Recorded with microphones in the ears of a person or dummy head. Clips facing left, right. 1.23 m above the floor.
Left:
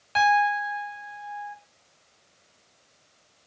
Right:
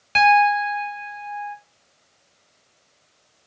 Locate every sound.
0.1 s a piano: 35° right (ahead or behind), 1.4 m